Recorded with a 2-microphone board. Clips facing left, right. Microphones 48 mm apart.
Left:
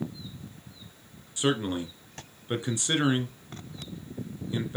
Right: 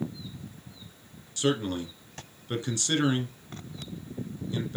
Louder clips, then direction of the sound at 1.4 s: Even; 20° left (ahead or behind).